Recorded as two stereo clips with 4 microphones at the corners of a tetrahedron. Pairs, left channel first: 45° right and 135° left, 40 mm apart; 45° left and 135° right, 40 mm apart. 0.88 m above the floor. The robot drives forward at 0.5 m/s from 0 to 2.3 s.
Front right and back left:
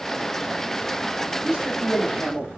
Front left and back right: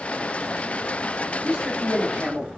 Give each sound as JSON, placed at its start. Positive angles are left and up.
{"t": 1.4, "sound": "a man speaking", "azimuth_deg": -150, "distance_m": 1.3}